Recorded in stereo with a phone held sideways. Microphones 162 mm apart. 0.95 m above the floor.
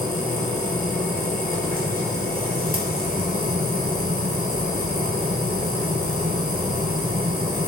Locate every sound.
0.0 s a machine running: 60° right (ahead or behind), 3.5 m